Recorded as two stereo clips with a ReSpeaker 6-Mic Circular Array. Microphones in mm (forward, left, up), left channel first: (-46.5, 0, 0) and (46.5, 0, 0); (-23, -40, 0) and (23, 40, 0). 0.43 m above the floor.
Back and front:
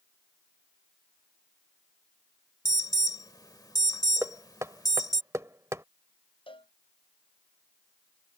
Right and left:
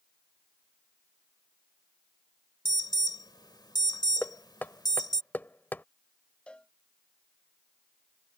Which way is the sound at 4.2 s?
55° right.